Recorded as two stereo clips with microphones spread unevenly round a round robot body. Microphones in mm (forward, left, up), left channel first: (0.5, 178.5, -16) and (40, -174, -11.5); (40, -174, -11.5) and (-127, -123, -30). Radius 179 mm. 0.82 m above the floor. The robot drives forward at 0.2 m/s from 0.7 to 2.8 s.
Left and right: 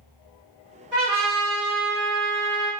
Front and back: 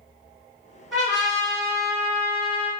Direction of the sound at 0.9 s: 115° right.